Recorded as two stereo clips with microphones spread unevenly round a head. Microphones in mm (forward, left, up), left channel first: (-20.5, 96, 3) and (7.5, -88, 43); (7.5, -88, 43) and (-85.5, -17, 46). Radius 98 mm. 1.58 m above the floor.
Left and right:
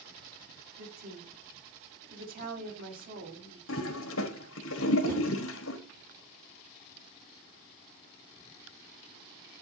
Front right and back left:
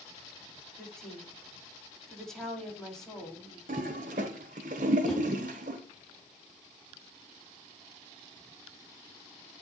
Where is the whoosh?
125° right, 4 m.